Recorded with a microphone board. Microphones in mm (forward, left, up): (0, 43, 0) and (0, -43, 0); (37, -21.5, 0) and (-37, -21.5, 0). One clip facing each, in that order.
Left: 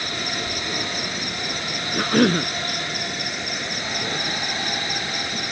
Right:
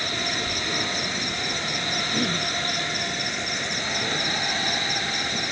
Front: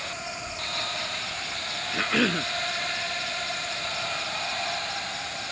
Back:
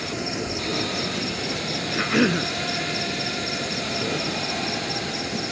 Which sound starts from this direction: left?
A cough, at 1.9 s.